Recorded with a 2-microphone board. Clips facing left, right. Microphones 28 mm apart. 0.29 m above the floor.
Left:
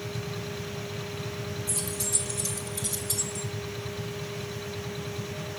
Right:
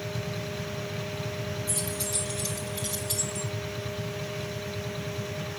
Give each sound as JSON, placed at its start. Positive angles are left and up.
{"t": 1.7, "sound": "keys jangling", "side_deg": -30, "distance_m": 2.5}